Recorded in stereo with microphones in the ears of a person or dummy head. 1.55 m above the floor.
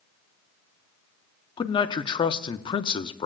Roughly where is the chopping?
I don't hear chopping.